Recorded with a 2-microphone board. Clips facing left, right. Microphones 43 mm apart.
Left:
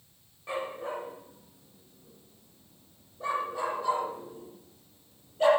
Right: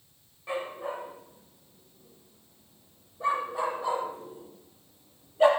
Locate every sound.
0.5 s a dog barking: 5° right (ahead or behind), 6 m; by 5.5 s 20° right (ahead or behind), 4 m